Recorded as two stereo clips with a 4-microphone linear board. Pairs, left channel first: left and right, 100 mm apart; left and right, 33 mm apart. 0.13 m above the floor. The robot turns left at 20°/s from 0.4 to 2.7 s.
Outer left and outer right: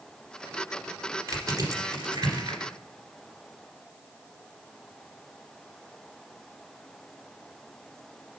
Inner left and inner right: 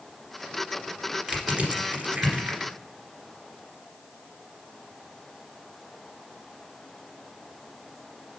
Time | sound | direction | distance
1.3 | crushing | 35° right (ahead or behind) | 1.9 m